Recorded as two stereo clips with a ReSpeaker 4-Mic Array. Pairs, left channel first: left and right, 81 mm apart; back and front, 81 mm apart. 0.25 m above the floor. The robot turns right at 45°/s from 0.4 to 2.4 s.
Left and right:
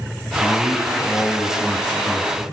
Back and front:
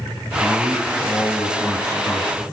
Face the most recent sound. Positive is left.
turn(degrees=-150)